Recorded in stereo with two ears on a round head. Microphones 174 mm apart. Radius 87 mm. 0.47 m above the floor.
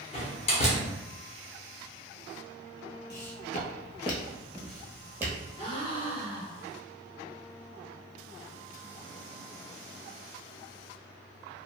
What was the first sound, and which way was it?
A door slam, 35° left (ahead or behind).